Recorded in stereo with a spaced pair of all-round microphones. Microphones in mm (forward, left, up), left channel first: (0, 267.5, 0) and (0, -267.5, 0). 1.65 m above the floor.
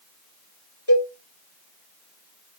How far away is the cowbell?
About 1.9 m.